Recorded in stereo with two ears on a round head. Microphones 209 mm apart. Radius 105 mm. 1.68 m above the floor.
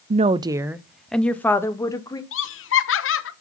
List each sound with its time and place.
0.1 s a woman speaking: 30° right (ahead or behind), 0.5 m; by 2.2 s 15° left (ahead or behind), 1.4 m
2.3 s laughter: 55° left (ahead or behind), 1.0 m